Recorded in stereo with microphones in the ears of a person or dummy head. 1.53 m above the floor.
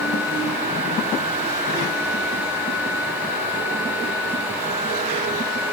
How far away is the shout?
I don't hear a shout.